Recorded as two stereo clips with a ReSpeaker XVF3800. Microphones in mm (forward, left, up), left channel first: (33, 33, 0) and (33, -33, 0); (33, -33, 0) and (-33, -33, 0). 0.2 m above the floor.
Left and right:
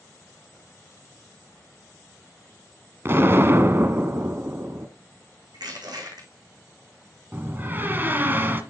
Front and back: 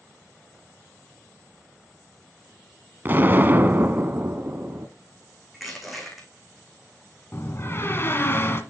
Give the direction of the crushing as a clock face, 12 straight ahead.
3 o'clock.